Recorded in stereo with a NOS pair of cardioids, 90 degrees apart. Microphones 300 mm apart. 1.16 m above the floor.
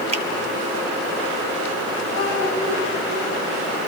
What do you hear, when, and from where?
0.1 s a finger snap: 20° right, 1.6 m
2.1 s a child speaking: 50° left, 5.5 m